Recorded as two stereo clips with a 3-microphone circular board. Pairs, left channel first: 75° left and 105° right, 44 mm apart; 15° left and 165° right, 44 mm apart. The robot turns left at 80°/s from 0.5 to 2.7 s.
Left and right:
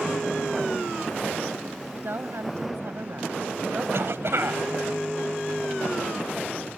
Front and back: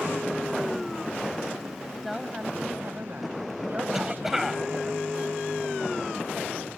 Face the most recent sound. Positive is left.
turn(degrees=-80)